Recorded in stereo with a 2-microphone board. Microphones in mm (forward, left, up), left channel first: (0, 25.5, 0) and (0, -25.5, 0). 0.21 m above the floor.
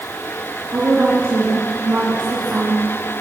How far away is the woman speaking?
About 2.5 m.